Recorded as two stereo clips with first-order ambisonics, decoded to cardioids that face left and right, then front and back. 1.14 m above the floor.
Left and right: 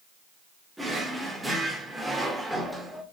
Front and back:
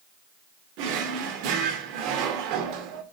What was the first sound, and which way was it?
A drawer, 175° right.